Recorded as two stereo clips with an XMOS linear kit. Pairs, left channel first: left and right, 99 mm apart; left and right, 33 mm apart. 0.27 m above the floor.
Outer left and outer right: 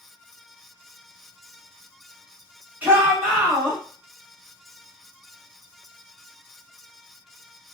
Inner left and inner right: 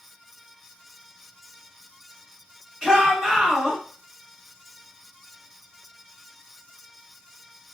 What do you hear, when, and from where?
2.8 s a shout: 20° right (ahead or behind), 1.5 m